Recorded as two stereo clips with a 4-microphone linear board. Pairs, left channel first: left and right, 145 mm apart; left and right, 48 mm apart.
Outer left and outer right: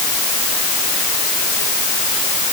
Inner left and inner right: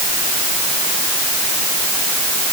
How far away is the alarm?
No alarm in this recording.